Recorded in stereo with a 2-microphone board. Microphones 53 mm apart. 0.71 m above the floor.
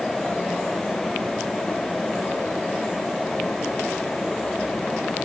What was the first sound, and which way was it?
Only background noise.